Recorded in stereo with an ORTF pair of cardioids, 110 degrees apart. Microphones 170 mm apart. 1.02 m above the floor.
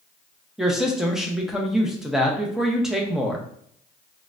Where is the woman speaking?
Straight ahead, 0.8 m.